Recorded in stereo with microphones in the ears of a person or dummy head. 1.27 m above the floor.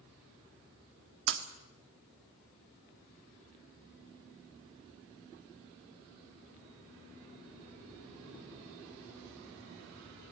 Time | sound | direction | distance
1.3 | breaking glass | 75° right (ahead or behind) | 1.6 m